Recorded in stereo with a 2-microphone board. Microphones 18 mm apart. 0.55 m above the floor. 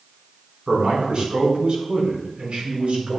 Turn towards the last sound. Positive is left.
turn(degrees=-80)